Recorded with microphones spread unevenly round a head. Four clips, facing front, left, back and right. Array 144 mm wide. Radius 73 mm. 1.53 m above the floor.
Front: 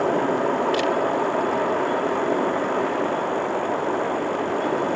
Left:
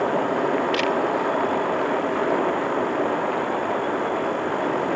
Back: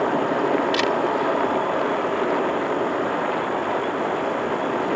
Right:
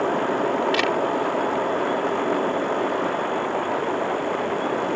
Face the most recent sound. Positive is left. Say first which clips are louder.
# even, even
turn(degrees=-110)